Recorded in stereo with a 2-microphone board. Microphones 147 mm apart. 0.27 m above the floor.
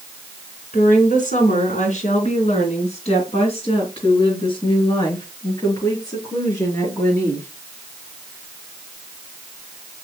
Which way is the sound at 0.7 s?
65° left (ahead or behind).